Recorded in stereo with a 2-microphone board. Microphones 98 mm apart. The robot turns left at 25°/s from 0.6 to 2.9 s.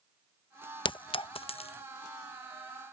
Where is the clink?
50° left (ahead or behind); by 1.8 s 75° left (ahead or behind).